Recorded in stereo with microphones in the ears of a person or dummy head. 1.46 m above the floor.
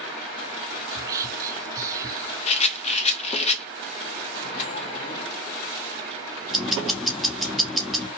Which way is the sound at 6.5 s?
Centre (ahead or behind).